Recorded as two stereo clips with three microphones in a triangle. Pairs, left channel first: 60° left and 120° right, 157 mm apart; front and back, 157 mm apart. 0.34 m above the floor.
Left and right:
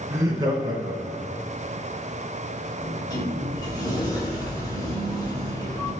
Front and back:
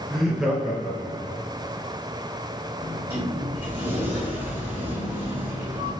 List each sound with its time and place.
0.1 s laughter: 85° right, 0.8 m; by 1.4 s 110° right, 1.3 m
2.8 s a sliding door: 110° left, 1.6 m